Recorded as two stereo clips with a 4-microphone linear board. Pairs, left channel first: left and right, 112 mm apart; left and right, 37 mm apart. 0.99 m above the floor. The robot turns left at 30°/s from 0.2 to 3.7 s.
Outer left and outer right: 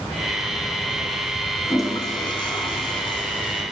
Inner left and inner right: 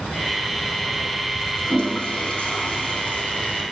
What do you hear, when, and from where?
1.6 s a toilet flushing: 135° left, 1.1 m; by 3.6 s 75° left, 1.1 m